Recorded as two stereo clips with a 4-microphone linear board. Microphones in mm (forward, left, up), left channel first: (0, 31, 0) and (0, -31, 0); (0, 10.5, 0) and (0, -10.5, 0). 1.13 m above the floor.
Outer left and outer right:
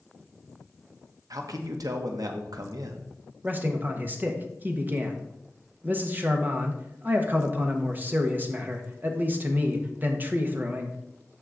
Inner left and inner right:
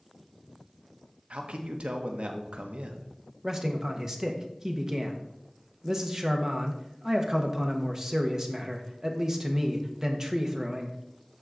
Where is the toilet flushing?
No toilet flushing in this recording.